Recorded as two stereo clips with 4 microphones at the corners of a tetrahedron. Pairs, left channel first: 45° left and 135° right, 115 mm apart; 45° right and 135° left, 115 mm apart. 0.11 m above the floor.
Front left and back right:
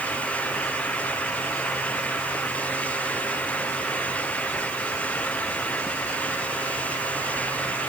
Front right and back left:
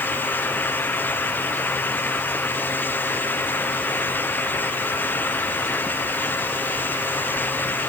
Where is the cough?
No cough in this recording.